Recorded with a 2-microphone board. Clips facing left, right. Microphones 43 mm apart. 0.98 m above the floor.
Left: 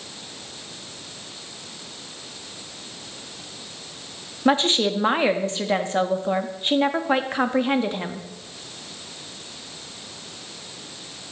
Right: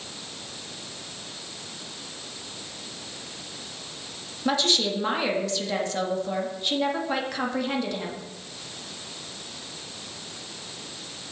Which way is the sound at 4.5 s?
35° left (ahead or behind).